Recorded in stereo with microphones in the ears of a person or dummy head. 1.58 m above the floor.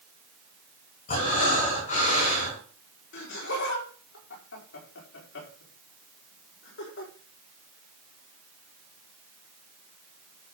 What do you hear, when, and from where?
1.1 s breathing: 45° left (ahead or behind), 8.5 m
3.1 s laughter: 65° left (ahead or behind), 5 m